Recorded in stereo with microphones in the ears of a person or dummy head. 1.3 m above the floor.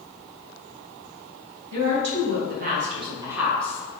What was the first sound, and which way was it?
A woman speaking, 65° right (ahead or behind).